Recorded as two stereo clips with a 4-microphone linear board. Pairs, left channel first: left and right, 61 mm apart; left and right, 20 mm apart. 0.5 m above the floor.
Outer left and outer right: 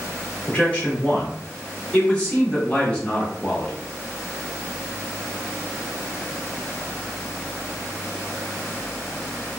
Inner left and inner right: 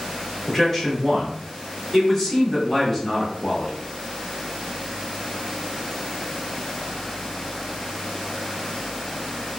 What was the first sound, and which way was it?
A man speaking, 20° left (ahead or behind).